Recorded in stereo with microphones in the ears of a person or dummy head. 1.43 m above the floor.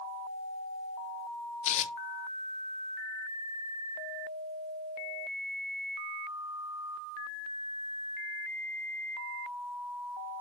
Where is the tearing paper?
40° left (ahead or behind), 0.6 m.